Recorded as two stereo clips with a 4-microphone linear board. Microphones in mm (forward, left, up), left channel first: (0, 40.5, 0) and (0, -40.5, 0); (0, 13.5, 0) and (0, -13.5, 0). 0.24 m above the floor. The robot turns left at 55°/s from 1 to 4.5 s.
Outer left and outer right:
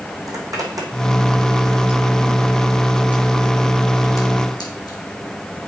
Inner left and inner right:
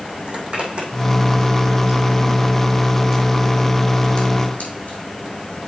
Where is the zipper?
45° right (ahead or behind), 2 m; by 5.0 s 55° left (ahead or behind), 2 m.